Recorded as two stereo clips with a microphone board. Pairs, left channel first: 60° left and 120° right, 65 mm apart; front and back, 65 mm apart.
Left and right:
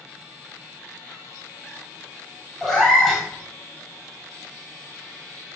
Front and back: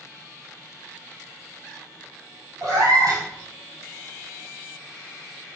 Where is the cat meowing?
145° left, 1.7 m.